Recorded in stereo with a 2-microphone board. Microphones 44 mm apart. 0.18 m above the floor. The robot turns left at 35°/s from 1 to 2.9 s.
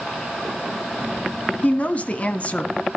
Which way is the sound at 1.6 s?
110° left.